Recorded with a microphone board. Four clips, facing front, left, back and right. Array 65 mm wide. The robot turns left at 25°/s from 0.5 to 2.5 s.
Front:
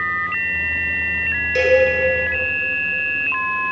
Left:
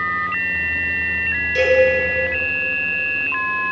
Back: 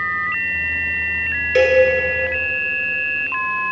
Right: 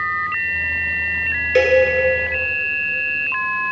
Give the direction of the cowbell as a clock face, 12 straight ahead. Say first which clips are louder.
Right 2 dB, back 1 dB; 4 o'clock.